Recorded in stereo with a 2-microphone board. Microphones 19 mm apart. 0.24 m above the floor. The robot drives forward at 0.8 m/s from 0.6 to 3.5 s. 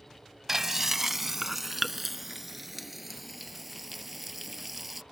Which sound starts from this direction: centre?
Frying, at 0.5 s.